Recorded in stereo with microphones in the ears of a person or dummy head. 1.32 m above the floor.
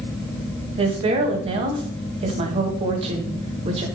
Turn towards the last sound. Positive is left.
turn(degrees=-30)  # may be behind; listen again after turning